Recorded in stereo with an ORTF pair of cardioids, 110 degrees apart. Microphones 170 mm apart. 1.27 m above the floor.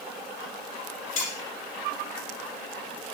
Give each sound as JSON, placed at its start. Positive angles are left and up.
{"t": 1.2, "sound": "cutlery clinking", "azimuth_deg": 55, "distance_m": 5.0}